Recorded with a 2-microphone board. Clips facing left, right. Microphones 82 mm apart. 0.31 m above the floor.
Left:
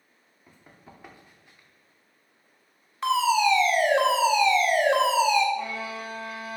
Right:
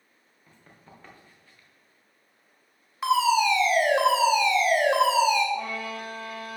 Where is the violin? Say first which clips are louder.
Even; 55° right (ahead or behind), 2 m.